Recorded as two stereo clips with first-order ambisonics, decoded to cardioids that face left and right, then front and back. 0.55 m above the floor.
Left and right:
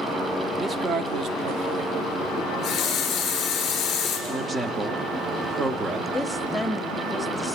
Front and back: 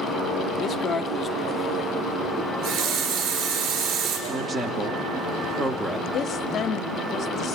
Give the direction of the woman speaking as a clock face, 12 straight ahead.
12 o'clock.